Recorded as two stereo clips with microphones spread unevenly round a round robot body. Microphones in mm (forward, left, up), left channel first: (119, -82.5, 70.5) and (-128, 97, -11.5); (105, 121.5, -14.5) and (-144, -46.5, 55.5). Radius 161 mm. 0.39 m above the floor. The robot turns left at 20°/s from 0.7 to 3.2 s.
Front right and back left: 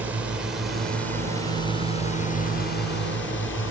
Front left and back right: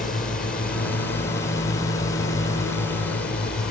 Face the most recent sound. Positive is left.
turn(degrees=-15)